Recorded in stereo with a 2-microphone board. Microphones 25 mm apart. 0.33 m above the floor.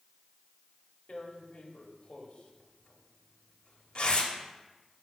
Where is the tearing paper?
45° left (ahead or behind), 0.6 m.